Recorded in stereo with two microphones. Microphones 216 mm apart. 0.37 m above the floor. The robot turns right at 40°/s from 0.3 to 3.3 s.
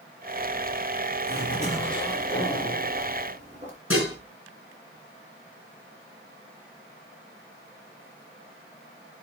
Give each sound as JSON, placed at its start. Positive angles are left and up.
{"t": 1.3, "sound": "a zipper", "azimuth_deg": 130, "distance_m": 5.0}
{"t": 3.9, "sound": "dishes clattering", "side_deg": 75, "distance_m": 3.5}